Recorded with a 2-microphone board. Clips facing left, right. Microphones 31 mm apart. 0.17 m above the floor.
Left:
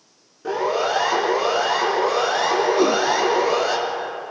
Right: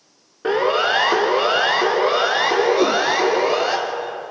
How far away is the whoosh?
About 1.4 m.